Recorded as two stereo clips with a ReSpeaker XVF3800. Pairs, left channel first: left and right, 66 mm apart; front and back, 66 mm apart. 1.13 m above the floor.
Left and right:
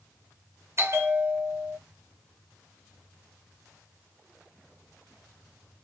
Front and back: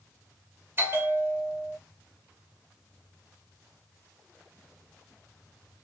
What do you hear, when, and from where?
0.8 s a bell: 130° right, 1.1 m